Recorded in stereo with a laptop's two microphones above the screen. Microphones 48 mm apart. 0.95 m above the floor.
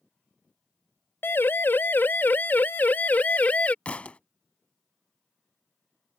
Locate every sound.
1.2 s a siren: 50° left (ahead or behind); by 3.8 s 30° left (ahead or behind)
3.9 s a thud: 30° left (ahead or behind)